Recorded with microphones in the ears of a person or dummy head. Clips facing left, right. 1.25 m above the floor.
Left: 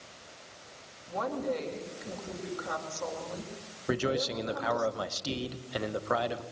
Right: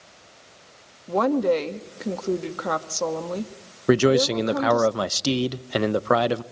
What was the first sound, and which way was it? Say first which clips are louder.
A woman speaking: right 12 dB; 80° right.